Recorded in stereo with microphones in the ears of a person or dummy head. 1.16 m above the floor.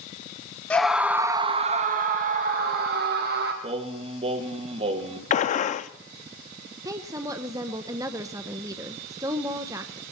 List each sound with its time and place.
0.7 s a scream: 5° left (ahead or behind), 0.6 m; by 3.5 s 50° right (ahead or behind), 1.4 m
3.6 s singing: 30° right (ahead or behind), 1.6 m
5.3 s a gunshot: 40° left (ahead or behind), 0.5 m
6.8 s a woman speaking: 15° right (ahead or behind), 0.6 m